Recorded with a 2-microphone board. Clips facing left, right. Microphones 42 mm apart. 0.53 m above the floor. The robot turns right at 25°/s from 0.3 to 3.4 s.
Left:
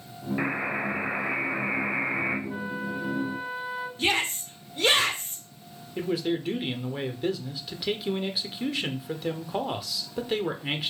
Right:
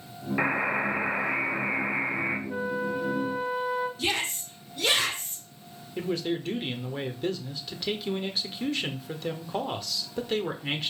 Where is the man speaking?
10° left (ahead or behind), 1.4 m.